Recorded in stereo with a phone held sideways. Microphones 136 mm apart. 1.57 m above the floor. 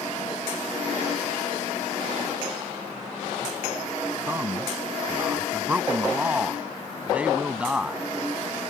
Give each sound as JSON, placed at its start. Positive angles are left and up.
{"t": 4.3, "sound": "a man speaking", "side_deg": -15}